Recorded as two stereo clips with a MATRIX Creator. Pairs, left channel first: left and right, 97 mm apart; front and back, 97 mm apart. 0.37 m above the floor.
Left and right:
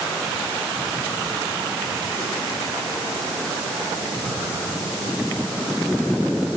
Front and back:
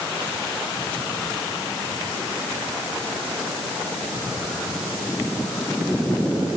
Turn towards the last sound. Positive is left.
No sound to turn to.